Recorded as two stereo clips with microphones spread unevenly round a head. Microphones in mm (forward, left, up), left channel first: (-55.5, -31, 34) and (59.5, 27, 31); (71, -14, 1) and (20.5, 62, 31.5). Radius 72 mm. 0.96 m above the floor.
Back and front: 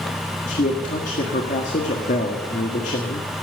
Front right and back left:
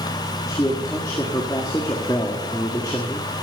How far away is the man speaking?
About 1.6 m.